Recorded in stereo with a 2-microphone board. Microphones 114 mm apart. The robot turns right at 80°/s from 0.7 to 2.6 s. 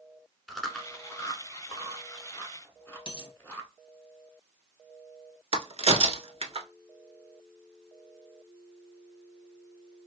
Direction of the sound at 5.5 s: 55° right (ahead or behind).